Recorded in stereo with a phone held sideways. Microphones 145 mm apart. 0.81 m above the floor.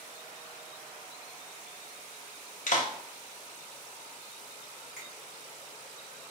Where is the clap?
60° left (ahead or behind), 0.8 m.